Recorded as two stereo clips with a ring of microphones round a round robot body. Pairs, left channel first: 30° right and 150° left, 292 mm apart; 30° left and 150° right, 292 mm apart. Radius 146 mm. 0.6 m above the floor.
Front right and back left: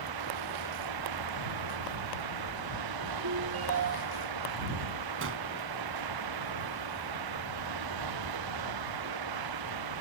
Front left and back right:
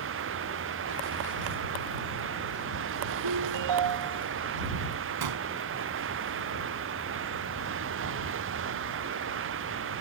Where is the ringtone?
170° right.